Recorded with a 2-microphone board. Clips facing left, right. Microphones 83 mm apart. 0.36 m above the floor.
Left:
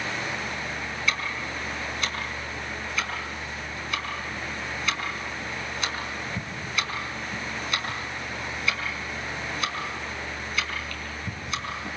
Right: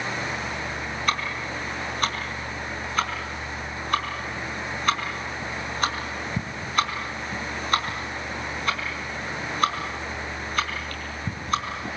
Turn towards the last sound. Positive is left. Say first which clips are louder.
# right 3 dB
turn(degrees=-45)  # may be behind; listen again after turning